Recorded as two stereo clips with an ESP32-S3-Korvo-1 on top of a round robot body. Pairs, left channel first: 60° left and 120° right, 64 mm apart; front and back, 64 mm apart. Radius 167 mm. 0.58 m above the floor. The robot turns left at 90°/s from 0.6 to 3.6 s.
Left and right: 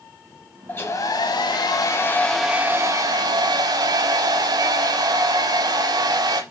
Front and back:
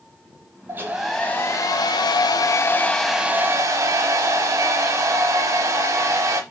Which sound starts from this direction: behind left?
A hair dryer, at 0.7 s.